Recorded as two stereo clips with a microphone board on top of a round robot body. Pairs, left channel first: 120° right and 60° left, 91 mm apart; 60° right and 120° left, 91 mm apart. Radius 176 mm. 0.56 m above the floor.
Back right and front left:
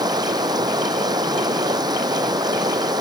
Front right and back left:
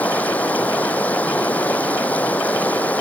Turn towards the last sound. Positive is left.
turn(degrees=15)